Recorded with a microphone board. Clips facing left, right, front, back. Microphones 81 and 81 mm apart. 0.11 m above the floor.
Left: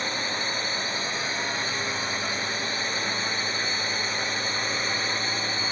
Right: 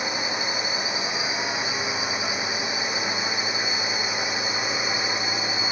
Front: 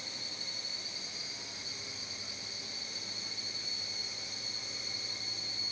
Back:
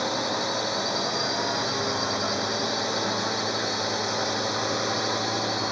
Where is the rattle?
I don't hear a rattle.